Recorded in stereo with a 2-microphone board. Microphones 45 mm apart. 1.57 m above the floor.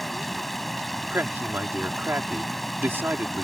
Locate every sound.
0.0 s running water: 5° left (ahead or behind)
1.1 s a man speaking: 60° right (ahead or behind)